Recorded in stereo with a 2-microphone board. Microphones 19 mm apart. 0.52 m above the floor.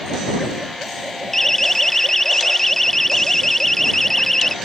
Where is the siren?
15° left (ahead or behind).